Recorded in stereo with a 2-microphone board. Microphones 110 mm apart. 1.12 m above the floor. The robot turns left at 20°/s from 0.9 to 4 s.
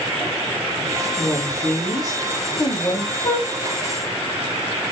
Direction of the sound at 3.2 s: 70° left (ahead or behind).